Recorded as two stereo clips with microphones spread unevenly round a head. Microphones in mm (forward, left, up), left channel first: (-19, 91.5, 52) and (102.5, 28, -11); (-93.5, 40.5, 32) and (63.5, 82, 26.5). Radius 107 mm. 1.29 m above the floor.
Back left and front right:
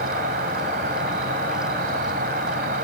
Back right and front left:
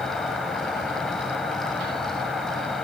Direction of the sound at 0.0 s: 75° right.